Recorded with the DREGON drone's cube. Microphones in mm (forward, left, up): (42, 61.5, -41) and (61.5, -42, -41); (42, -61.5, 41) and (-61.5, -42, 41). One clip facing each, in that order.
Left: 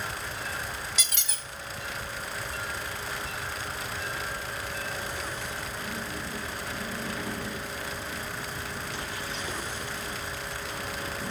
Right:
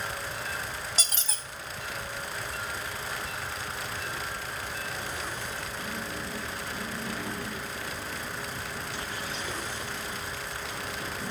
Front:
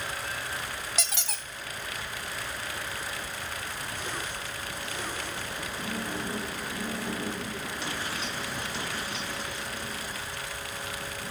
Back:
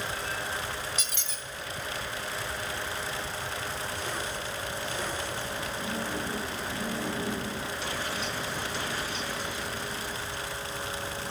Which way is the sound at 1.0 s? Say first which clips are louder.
Right 1 dB, front 3 dB; 25° right.